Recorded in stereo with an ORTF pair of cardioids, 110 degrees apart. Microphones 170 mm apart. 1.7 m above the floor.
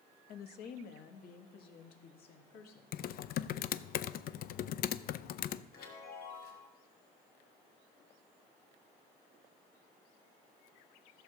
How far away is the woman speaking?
About 1.2 m.